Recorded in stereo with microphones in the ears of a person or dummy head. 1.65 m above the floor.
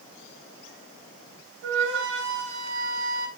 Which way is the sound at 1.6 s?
75° right (ahead or behind).